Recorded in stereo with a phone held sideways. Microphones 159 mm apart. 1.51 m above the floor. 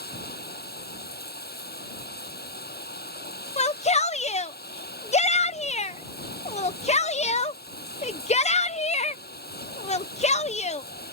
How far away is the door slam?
No door slam in this recording.